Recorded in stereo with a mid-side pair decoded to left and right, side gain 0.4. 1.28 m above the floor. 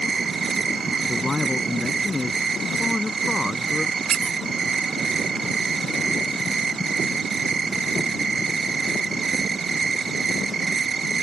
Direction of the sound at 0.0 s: 40° right.